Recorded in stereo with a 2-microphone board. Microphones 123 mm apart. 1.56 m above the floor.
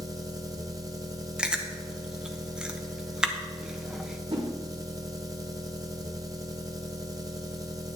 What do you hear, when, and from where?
0.0 s an engine running: 30° right (ahead or behind), 0.9 m
1.4 s chewing: 10° right (ahead or behind), 0.8 m
4.3 s a whoosh: 50° right (ahead or behind), 1.9 m